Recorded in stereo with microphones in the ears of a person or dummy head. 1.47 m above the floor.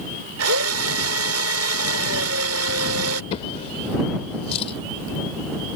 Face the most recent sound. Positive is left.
turn(degrees=40)  # may be behind; listen again after turning